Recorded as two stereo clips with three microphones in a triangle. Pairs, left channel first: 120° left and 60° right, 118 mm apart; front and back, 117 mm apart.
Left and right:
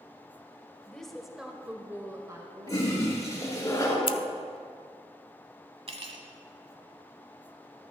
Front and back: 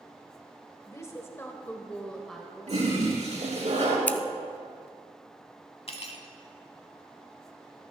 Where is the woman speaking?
40° left, 1.6 m; by 3.7 s 105° right, 2.5 m.